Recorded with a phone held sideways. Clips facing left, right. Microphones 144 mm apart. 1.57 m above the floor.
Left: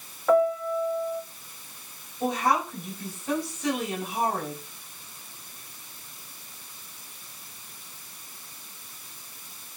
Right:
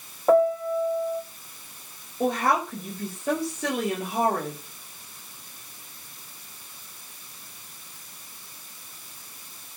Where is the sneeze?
I don't hear a sneeze.